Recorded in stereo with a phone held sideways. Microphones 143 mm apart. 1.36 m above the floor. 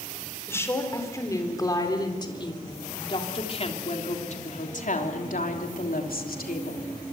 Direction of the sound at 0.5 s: 15° left (ahead or behind).